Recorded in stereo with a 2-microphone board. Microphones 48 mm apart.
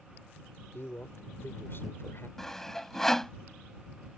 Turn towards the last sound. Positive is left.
turn(degrees=10)  # may be behind; listen again after turning